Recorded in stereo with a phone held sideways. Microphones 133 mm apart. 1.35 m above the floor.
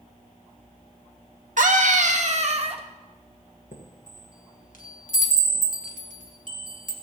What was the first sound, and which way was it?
A scream, 75° right (ahead or behind).